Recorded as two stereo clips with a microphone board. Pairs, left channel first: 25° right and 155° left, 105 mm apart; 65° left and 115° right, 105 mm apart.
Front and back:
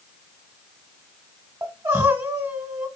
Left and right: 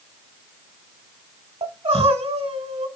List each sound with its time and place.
1.6 s crying: 140° right, 0.7 m